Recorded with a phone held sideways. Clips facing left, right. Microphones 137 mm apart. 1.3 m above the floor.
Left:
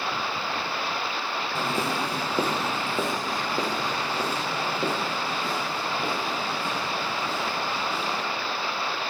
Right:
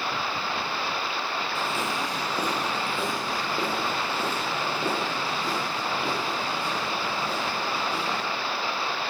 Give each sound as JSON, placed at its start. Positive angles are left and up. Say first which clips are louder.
{"t": 1.6, "sound": "footsteps", "louder": "left 4 dB", "side_deg": 40, "distance_m": 1.6}